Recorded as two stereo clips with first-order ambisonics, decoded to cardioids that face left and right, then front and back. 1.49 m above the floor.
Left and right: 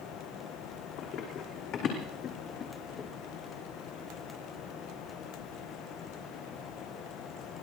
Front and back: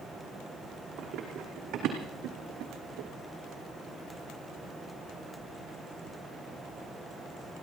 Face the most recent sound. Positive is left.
turn(degrees=150)